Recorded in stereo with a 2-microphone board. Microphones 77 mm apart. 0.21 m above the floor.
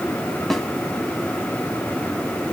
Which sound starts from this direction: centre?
A snare drum, at 0.5 s.